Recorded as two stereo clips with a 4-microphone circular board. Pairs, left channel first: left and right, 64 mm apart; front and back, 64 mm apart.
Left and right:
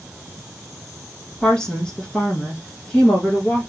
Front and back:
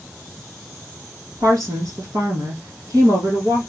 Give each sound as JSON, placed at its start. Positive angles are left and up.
{"t": 1.4, "sound": "a woman speaking", "azimuth_deg": 170, "distance_m": 4.0}